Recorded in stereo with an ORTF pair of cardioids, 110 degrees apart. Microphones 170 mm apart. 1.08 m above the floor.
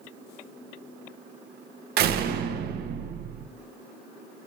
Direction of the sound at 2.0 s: 65° right.